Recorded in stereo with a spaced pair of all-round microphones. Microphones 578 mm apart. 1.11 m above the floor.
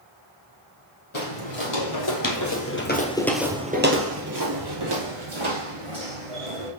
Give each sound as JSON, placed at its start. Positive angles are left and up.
{"t": 1.1, "sound": "footsteps", "side_deg": 55, "distance_m": 1.9}